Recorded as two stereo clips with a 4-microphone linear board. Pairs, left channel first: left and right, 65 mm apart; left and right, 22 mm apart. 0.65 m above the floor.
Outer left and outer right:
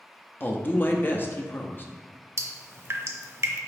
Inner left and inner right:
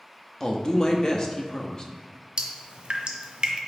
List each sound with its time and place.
0.4 s a woman speaking: 30° left (ahead or behind), 0.5 m
2.4 s dripping: 45° right (ahead or behind), 0.5 m